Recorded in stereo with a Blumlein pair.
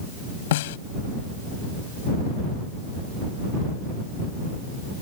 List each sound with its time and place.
0.5 s a snare drum: 55° left